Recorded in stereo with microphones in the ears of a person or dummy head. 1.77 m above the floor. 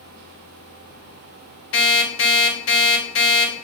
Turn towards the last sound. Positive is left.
turn(degrees=65)  # may be behind; listen again after turning